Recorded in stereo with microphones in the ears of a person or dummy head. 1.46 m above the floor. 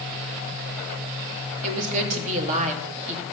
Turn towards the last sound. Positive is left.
turn(degrees=-45)  # may be behind; listen again after turning